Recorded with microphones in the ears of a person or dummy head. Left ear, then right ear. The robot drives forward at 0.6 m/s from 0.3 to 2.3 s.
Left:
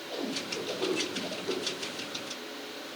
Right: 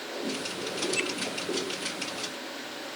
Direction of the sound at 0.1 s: 50° left (ahead or behind).